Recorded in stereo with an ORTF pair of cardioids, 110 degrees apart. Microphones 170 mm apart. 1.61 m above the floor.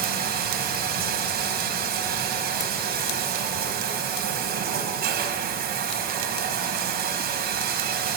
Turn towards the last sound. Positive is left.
turn(degrees=-70)